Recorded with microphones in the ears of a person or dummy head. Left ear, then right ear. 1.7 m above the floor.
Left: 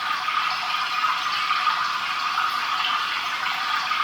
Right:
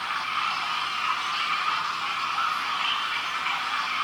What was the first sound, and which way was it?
Running water, 35° left (ahead or behind).